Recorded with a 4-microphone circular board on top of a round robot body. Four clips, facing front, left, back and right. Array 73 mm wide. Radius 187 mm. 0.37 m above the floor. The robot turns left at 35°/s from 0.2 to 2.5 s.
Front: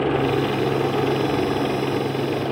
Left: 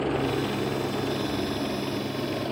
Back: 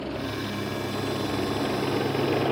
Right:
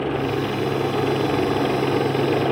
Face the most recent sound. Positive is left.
turn(degrees=-95)